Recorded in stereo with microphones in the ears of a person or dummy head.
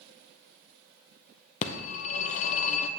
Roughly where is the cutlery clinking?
No cutlery clinking in this recording.